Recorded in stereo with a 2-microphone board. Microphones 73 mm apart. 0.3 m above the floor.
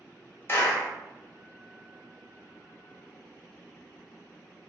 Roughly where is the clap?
Left.